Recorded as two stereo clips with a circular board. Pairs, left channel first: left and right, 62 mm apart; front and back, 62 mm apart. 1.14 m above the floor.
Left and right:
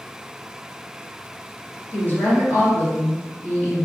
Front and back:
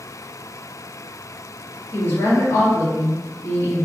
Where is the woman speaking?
35° left, 1.3 m.